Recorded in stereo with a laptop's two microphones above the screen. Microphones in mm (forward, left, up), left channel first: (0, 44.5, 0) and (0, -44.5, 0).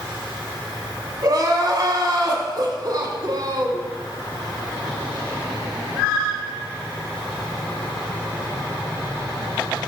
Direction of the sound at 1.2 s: 40° right (ahead or behind).